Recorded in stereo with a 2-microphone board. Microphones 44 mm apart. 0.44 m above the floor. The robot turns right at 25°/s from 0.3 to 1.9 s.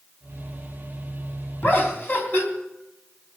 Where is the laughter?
45° left (ahead or behind), 3 m; by 2.5 s 55° left (ahead or behind), 3 m.